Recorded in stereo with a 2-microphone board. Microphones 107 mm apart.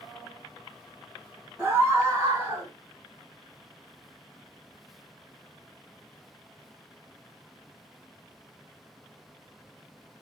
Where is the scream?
20° right (ahead or behind), 1.6 m; by 2.7 s 40° right (ahead or behind), 1.2 m.